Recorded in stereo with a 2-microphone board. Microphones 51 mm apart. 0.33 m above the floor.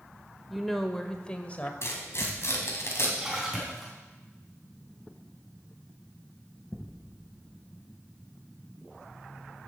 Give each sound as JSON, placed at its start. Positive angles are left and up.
{"t": 0.5, "sound": "a woman speaking", "side_deg": 0, "distance_m": 0.9}
{"t": 1.8, "sound": "tearing paper", "side_deg": 60, "distance_m": 2.5}
{"t": 3.2, "sound": "a splash", "side_deg": -10, "distance_m": 3.5}